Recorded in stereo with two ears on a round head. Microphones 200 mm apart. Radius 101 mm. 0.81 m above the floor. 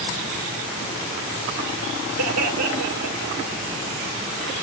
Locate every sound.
2.2 s laughter: 75° right (ahead or behind), 2.5 m; by 3.6 s 80° right, 3.5 m